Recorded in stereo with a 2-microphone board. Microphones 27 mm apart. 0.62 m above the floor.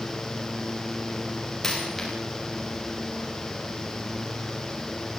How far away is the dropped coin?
About 8.5 m.